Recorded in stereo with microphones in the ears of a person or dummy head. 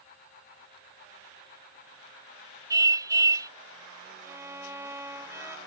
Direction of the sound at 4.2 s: 15° right (ahead or behind).